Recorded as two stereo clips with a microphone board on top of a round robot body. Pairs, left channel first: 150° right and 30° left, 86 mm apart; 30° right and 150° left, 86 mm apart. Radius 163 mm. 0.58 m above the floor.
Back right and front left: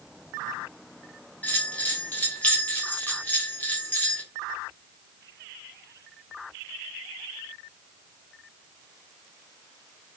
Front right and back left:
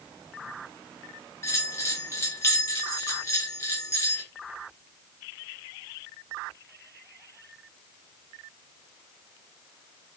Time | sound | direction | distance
1.4 | a bell | 80° right | 1.2 m